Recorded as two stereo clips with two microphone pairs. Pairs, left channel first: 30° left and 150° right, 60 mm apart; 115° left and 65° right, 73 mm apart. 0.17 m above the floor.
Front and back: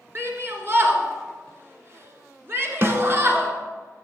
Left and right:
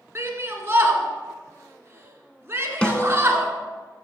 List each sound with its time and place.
0.1 s a shout: 115° right, 2.0 m
2.8 s a snare drum: 170° right, 1.3 m